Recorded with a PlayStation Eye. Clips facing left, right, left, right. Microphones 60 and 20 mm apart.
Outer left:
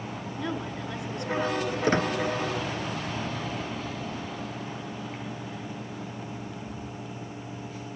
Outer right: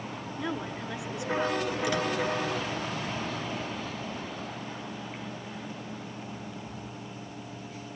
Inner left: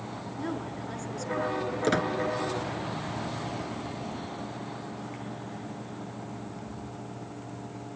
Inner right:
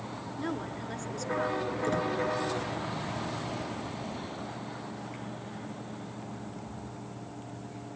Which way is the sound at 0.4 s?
5° right (ahead or behind).